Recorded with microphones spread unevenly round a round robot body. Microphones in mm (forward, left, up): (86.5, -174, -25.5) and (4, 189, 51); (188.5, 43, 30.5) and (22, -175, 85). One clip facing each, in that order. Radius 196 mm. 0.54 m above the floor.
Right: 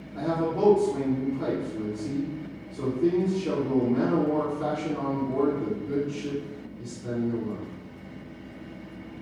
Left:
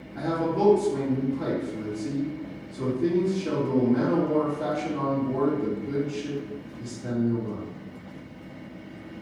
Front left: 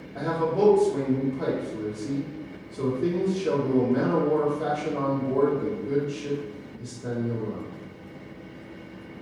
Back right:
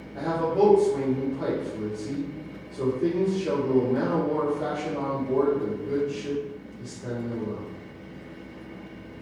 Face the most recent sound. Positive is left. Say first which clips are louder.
# left 1 dB, back right 1 dB
turn(degrees=0)